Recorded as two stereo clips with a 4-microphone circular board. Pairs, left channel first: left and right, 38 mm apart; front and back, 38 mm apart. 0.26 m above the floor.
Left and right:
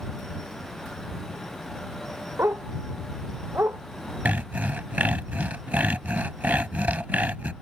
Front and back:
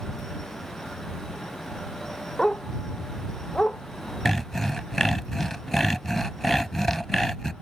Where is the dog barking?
75° right; by 3.8 s 65° right.